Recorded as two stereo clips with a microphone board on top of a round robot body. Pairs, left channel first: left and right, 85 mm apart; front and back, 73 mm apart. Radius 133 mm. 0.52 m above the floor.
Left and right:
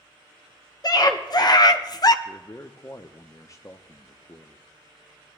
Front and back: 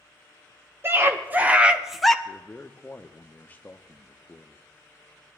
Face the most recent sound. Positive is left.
turn(degrees=60)